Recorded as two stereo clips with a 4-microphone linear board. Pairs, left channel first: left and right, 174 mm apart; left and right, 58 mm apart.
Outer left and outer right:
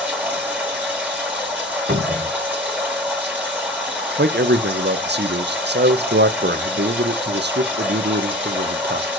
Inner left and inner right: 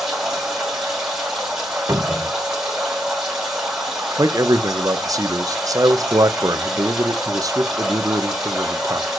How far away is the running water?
About 6.5 m.